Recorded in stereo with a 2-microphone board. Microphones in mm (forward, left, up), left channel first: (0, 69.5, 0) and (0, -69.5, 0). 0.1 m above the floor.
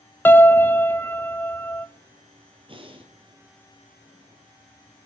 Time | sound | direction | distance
0.2 | a piano | 15° left (ahead or behind) | 0.6 m
2.7 | breathing | 40° right (ahead or behind) | 3 m